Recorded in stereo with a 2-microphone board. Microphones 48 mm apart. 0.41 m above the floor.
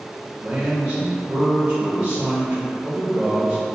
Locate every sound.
0.4 s a man speaking: 35° right (ahead or behind), 1.1 m